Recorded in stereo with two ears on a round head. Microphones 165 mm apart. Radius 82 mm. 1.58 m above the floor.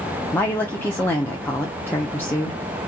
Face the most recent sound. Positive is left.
turn(degrees=10)  # may be behind; listen again after turning